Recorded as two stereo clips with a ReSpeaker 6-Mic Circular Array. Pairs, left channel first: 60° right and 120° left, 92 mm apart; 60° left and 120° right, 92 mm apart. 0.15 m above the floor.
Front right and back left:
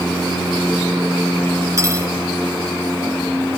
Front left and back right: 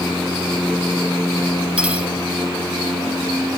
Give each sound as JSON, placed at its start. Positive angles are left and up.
{"t": 1.8, "sound": "cutlery clinking", "azimuth_deg": 165, "distance_m": 1.3}